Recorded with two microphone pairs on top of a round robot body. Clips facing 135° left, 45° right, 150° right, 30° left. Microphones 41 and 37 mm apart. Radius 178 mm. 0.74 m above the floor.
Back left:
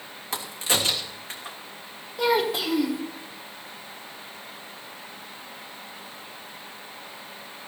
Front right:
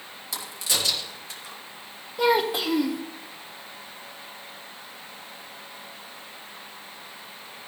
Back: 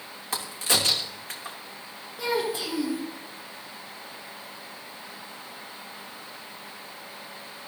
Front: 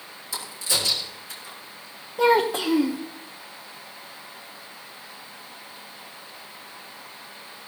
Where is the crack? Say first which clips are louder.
Back left 3 dB, back 2 dB; 175° right, 3 m.